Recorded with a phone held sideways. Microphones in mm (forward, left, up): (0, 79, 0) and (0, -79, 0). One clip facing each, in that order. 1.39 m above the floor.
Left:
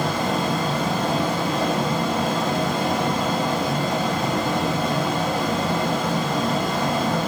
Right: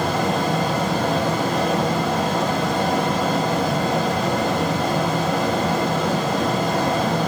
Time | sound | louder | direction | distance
0.0 | a fan | right 2 dB | 65° right (ahead or behind) | 3 m